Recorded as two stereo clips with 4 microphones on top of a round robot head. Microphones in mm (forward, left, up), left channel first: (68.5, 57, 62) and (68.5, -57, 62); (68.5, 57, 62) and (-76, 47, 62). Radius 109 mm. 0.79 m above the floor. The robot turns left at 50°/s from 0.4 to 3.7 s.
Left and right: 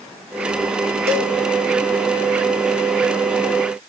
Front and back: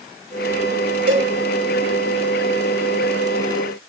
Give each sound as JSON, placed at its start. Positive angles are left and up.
{"t": 1.1, "sound": "a cowbell", "azimuth_deg": -120, "distance_m": 2.5}